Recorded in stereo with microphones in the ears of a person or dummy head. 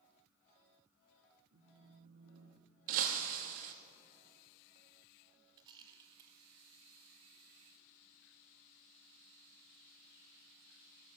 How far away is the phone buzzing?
About 0.9 m.